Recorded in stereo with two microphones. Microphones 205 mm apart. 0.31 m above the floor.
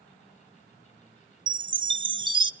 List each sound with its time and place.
1.5 s a chime: 20° right (ahead or behind), 0.7 m